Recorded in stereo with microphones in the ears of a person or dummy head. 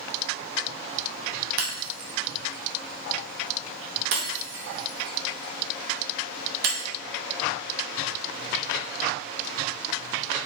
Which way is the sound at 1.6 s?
60° right (ahead or behind).